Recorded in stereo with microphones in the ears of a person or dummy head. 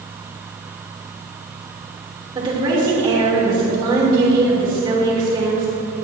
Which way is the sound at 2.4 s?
25° right (ahead or behind).